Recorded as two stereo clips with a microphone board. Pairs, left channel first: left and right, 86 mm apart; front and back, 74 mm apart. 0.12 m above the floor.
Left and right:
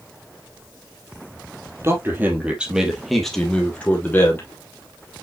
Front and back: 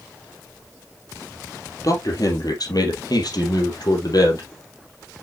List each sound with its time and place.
1.8 s a man speaking: 35° right, 3 m; by 4.5 s 25° left, 3.5 m